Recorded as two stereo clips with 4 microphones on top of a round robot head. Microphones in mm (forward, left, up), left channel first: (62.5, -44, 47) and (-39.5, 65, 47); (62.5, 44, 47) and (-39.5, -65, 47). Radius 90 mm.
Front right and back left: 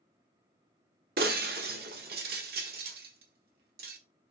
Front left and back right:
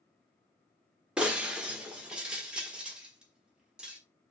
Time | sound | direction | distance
1.2 | breaking glass | 145° left | 1.3 m